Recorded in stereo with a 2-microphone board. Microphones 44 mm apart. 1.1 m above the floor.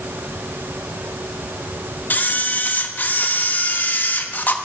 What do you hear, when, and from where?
2.1 s a camera shutter: 45° left (ahead or behind), 1.2 m